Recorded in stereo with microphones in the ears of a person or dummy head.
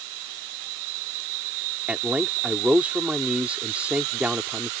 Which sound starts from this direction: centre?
A man speaking, at 1.9 s.